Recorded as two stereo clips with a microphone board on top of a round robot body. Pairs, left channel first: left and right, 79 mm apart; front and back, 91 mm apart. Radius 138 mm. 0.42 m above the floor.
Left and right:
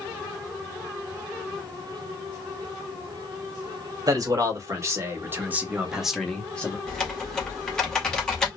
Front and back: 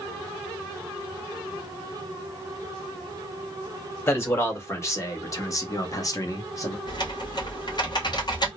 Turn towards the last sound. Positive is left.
turn(degrees=10)